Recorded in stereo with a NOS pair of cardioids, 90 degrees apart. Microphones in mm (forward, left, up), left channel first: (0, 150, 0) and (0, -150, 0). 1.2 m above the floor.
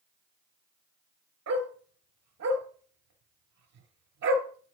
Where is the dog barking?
60° right, 4.5 m.